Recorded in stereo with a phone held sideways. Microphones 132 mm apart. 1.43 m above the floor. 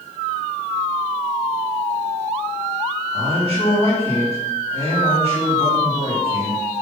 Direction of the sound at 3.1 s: 40° left (ahead or behind).